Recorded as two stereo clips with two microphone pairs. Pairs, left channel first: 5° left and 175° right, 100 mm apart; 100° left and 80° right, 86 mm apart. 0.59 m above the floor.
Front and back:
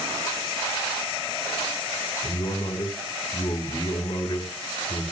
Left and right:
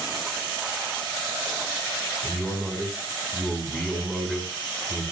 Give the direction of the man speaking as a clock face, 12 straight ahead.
11 o'clock.